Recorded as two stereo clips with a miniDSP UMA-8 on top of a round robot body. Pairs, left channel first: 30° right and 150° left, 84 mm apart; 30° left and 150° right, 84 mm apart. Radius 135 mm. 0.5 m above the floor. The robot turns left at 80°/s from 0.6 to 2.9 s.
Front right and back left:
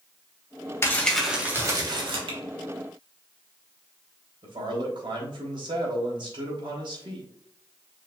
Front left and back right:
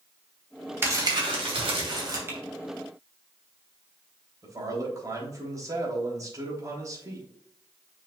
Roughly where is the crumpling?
Right.